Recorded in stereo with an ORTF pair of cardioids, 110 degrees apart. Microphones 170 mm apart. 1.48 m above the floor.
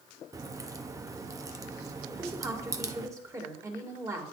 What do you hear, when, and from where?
0.3 s a crack: 20° right, 0.7 m
2.1 s a woman speaking: 20° right, 2 m